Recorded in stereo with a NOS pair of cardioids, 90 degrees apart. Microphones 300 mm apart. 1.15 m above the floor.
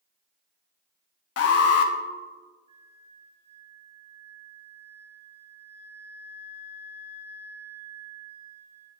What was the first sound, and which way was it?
An alarm, 55° left.